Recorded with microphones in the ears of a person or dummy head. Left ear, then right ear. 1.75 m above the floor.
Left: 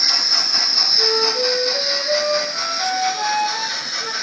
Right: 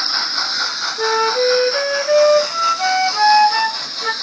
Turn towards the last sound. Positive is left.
turn(degrees=-65)  # may be behind; listen again after turning